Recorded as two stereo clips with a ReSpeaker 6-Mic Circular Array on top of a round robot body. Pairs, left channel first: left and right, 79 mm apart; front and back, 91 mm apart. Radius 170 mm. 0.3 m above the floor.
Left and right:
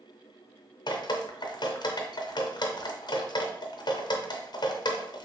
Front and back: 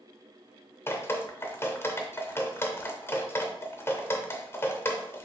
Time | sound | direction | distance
0.9 | dripping | 65° left | 0.7 m